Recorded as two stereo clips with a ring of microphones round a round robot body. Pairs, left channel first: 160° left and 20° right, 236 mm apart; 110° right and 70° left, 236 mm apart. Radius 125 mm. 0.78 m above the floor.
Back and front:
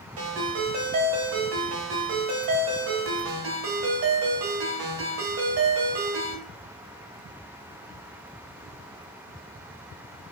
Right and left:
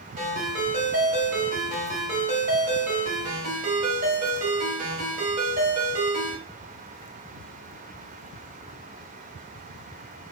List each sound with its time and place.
0.2 s a ringtone: 10° left, 1.8 m